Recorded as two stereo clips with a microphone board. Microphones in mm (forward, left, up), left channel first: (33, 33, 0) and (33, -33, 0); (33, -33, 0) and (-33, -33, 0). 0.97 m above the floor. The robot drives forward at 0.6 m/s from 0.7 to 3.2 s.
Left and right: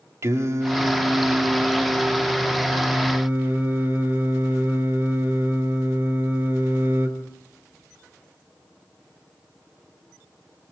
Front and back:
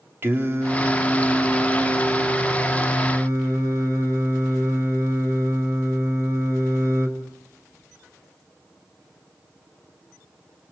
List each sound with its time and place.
0.2 s singing: 130° right, 2.5 m; by 7.1 s 150° right, 3.5 m